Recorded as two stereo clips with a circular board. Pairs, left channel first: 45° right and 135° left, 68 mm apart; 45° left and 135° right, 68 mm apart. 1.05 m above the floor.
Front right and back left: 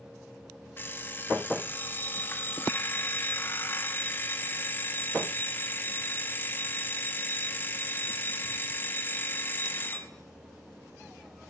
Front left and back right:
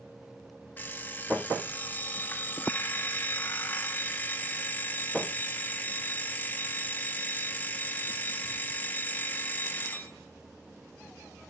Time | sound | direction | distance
0.8 | an alarm clock | 5° right | 0.6 m